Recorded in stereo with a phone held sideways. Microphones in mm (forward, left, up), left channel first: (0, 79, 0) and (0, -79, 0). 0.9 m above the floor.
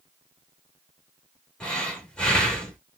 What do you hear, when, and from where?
1.6 s breathing: 5° left (ahead or behind), 1.7 m